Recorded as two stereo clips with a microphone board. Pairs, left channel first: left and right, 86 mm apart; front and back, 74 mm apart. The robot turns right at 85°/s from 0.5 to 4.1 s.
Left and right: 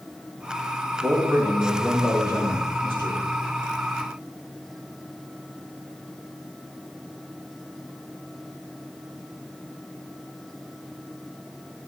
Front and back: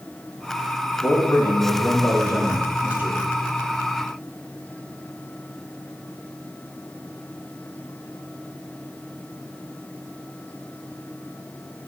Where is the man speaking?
50° right, 5 m; by 3.2 s 130° left, 5 m.